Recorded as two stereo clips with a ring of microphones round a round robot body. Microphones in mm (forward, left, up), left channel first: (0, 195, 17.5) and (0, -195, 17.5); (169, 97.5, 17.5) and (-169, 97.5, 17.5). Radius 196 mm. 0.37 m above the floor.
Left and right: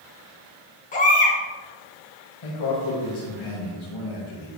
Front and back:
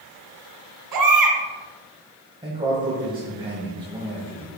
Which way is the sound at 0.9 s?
160° left.